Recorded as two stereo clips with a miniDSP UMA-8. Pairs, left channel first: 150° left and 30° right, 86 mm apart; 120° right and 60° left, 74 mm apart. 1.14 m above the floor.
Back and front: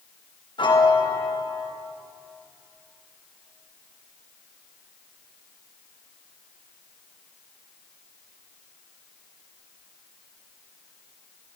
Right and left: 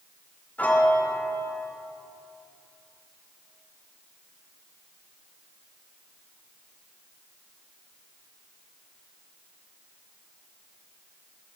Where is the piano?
170° left, 1.1 m.